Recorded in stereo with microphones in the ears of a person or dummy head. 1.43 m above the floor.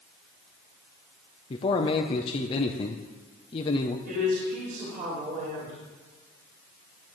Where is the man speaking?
30° left (ahead or behind), 0.7 m.